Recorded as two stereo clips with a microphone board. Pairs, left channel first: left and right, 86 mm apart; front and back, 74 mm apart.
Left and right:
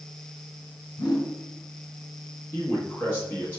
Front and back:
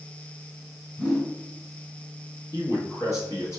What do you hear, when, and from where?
1.0 s a whoosh: 80° left, 1.7 m
2.5 s a man speaking: 30° left, 1.6 m